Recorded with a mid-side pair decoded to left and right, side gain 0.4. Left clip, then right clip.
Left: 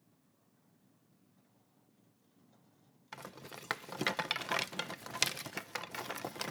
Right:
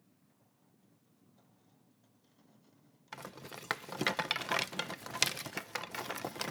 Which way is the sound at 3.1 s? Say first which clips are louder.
Right 1 dB; 10° right.